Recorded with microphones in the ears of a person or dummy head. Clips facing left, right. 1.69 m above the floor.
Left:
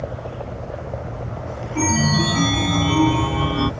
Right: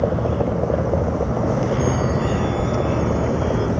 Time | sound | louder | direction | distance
0.0 | a vehicle | right 10 dB | 65° right (ahead or behind) | ?
1.8 | a chime | even | 85° left | ?